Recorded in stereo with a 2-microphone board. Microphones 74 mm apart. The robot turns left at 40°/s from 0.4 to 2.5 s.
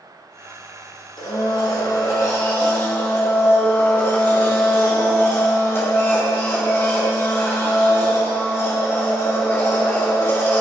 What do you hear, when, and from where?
1.2 s a blender: 90° left, 3 m; by 10.6 s 35° left, 3 m